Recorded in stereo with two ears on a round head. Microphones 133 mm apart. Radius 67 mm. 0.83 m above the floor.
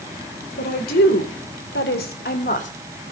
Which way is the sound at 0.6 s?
70° left (ahead or behind).